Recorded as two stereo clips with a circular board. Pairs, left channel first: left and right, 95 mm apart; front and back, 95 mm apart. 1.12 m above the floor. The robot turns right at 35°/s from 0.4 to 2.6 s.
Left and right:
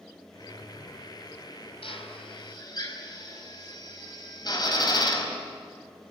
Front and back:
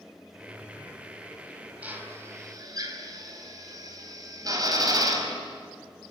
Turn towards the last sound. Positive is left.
turn(degrees=135)